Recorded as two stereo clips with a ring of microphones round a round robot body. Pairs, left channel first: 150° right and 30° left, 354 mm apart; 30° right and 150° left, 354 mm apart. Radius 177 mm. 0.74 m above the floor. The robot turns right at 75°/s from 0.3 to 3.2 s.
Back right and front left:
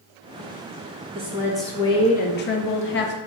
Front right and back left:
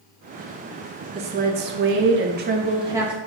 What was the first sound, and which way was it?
A woman speaking, 90° left.